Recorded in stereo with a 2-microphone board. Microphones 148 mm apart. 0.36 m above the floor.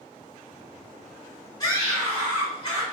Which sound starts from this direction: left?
A scream, at 1.6 s.